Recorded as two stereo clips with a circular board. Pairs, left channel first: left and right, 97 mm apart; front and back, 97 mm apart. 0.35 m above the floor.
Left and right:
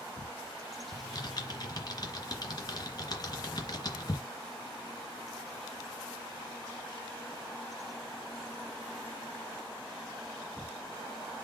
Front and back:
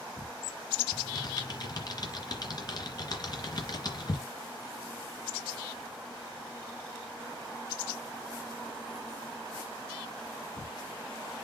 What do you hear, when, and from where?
0.9 s typing on a keyboard: 45° left, 2.5 m